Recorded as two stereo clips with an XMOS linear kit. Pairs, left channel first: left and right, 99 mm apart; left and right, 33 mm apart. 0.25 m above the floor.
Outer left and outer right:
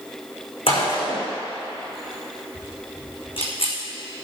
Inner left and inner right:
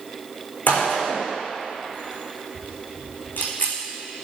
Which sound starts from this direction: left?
A gunshot, at 0.7 s.